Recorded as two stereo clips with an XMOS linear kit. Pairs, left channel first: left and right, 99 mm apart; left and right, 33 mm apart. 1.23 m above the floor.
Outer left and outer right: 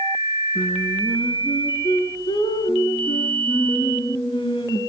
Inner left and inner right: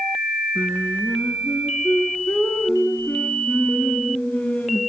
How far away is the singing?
About 4 m.